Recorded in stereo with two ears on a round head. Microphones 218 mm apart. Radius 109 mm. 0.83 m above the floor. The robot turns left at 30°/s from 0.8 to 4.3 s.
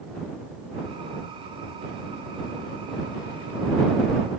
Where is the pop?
I don't hear a pop.